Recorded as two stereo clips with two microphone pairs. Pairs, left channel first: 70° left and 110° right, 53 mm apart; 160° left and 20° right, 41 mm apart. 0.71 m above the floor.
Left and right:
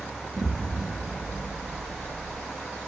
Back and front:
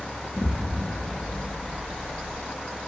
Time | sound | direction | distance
0.3 | an explosion | 150° right | 1.1 m